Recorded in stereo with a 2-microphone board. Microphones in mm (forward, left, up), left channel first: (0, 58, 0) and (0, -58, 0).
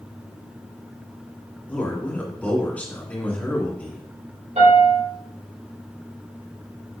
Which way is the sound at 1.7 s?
15° left (ahead or behind).